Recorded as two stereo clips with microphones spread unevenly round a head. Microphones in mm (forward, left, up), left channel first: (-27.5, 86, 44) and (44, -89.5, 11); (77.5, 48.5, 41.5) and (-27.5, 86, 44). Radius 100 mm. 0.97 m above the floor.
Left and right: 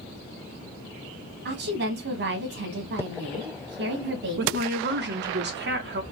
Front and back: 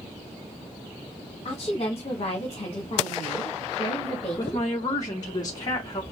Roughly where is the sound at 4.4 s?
Right.